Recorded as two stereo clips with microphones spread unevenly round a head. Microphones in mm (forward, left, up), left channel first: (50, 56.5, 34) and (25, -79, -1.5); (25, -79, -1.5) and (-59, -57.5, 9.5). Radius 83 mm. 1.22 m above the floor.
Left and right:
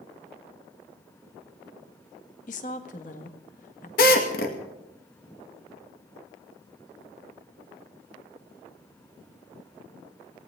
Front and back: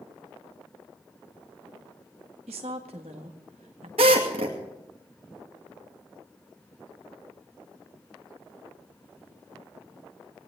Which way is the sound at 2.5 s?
130° left.